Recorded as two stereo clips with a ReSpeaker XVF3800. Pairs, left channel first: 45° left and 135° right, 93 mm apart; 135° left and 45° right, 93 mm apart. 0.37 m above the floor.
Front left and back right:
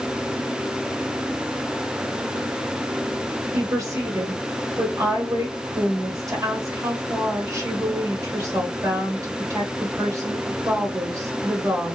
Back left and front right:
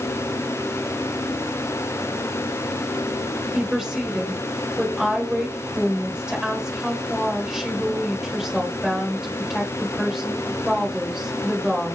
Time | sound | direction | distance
3.5 | a woman speaking | 125° right | 1.6 m